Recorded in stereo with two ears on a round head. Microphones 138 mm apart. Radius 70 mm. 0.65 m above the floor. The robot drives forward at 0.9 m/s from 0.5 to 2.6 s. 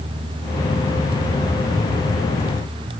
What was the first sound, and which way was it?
Only background noise.